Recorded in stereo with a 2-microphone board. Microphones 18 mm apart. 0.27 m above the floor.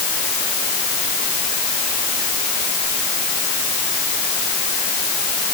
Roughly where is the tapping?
No tapping in this recording.